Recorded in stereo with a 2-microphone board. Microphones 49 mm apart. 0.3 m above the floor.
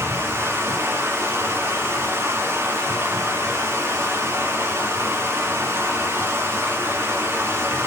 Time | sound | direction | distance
0.0 | running water | 65° right (ahead or behind) | 1.7 m